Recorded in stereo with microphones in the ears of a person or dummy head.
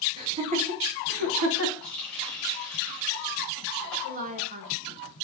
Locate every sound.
0.2 s laughter: 25° right (ahead or behind), 2.5 m; by 1.7 s 75° right (ahead or behind), 1.9 m
1.8 s a running tap: 10° left (ahead or behind), 4 m
4.0 s a woman speaking: 40° right (ahead or behind), 1.6 m